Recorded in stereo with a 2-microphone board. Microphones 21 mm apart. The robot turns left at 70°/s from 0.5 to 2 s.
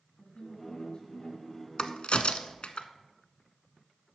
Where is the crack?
55° left (ahead or behind), 0.7 m; by 2.9 s 70° left (ahead or behind), 0.7 m.